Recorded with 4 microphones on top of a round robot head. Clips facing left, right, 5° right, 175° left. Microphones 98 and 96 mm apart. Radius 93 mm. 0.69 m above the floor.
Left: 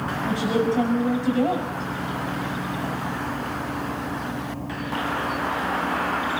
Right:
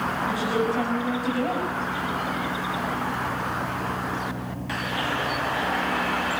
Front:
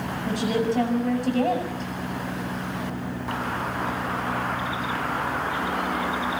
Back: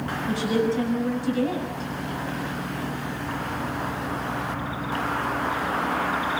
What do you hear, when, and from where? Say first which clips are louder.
0.3 s a woman speaking: left 4 dB, back 1 dB; 20° left, 6.5 m